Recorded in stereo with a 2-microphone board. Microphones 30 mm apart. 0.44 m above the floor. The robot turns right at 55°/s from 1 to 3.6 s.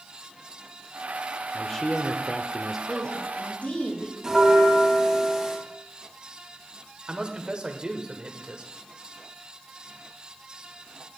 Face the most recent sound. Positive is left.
turn(degrees=-30)  # may be behind; listen again after turning